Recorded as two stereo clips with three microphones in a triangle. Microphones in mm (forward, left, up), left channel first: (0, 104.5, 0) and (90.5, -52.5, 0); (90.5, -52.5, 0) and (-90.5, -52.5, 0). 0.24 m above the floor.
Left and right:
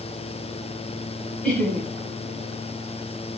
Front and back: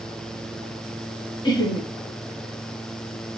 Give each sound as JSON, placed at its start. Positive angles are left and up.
{"t": 1.4, "sound": "laughter", "azimuth_deg": 40, "distance_m": 1.2}